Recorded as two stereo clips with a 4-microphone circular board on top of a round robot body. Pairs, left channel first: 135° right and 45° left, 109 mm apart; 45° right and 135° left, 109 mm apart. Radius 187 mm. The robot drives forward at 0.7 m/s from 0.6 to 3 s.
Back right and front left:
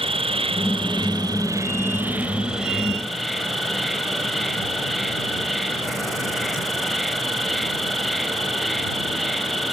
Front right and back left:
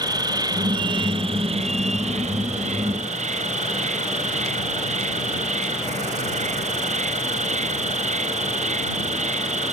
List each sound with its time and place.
0.0 s an insect: 80° left; by 9.7 s 135° left